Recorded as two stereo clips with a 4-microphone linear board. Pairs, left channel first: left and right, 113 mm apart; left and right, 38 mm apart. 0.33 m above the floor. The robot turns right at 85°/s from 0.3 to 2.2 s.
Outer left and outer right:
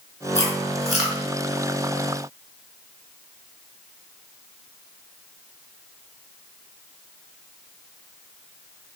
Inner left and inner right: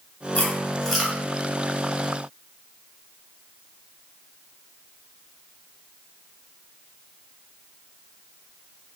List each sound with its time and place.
0.3 s chewing: 45° left (ahead or behind), 0.9 m; by 1.2 s 20° right (ahead or behind), 0.9 m